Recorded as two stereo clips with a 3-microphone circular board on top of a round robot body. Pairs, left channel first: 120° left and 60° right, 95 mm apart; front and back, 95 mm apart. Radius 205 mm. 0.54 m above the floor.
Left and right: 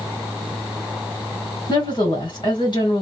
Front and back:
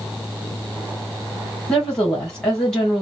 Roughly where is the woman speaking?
Left.